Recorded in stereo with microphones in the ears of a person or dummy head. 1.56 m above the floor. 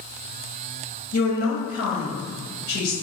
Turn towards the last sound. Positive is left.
turn(degrees=85)